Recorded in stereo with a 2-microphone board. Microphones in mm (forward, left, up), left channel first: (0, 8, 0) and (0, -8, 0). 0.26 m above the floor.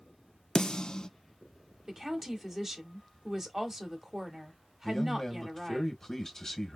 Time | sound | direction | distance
0.6 | a snare drum | 55° left (ahead or behind) | 0.6 m
1.9 | a woman speaking | 25° right (ahead or behind) | 1.1 m
4.8 | a man speaking | 35° left (ahead or behind) | 1.3 m